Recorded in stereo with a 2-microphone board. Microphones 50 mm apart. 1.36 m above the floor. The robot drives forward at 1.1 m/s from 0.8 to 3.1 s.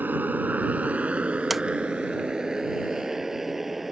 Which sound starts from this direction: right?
A motorcycle, at 0.0 s.